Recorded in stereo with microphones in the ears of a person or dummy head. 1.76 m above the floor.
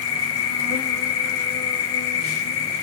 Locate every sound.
0.0 s an insect: 15° left (ahead or behind), 2 m